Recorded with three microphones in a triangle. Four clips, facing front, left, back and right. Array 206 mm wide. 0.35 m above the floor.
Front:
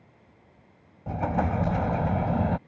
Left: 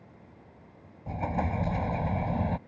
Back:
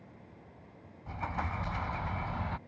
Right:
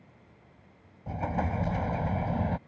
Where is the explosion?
5° left.